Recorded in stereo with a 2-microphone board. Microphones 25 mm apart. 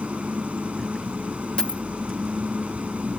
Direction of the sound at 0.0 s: 65° right (ahead or behind).